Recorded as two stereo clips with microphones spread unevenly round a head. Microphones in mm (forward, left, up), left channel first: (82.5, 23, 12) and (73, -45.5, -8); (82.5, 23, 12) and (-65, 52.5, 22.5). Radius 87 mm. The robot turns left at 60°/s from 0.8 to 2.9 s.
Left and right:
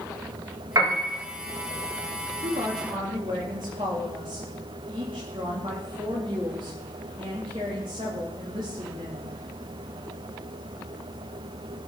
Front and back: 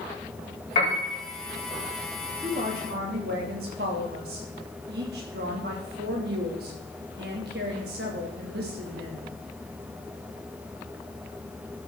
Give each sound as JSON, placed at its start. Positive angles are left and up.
{"t": 0.8, "sound": "a piano", "azimuth_deg": -70, "distance_m": 5.5}
{"t": 2.4, "sound": "a woman speaking", "azimuth_deg": -125, "distance_m": 2.5}